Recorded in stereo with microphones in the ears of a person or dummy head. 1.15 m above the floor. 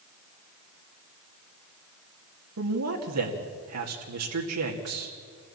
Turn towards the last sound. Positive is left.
turn(degrees=-75)  # may be behind; listen again after turning